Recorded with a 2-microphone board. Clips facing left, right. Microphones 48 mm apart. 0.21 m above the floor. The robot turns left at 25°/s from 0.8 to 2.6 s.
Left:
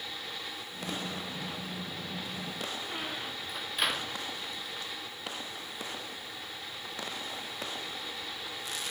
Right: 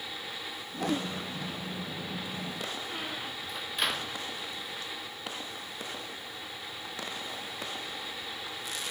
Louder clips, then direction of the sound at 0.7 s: Right 7 dB; 60° right (ahead or behind).